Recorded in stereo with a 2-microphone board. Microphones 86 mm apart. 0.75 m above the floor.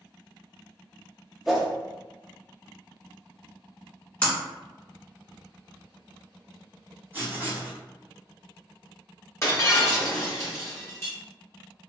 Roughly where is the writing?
Right.